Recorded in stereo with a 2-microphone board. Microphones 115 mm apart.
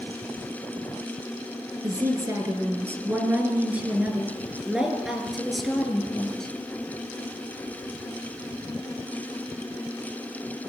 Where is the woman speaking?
30° right (ahead or behind), 4.5 m; by 6.5 s 5° left (ahead or behind), 5 m.